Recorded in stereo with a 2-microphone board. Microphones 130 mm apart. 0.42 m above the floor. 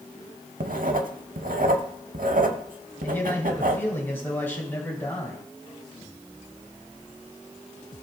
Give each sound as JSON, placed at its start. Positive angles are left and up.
{"t": 0.6, "sound": "writing", "side_deg": -85, "distance_m": 0.7}
{"t": 3.0, "sound": "a man speaking", "side_deg": 15, "distance_m": 2.5}